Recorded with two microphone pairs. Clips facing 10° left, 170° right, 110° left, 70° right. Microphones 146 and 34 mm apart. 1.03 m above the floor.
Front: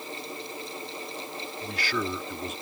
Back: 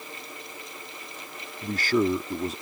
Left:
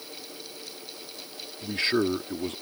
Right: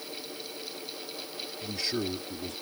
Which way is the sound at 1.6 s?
150° left.